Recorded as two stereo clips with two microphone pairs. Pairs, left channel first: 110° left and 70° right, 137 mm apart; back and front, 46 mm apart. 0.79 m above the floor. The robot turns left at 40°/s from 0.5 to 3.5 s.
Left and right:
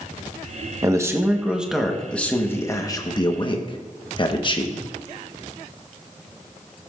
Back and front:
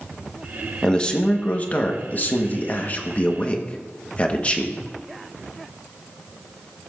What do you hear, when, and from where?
0.8 s a man speaking: 120° right, 1.1 m; by 4.8 s 135° left, 1.1 m